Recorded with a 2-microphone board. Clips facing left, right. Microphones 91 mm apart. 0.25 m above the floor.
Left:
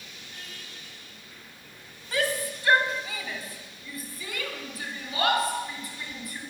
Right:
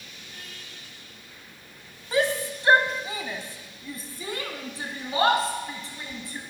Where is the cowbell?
No cowbell in this recording.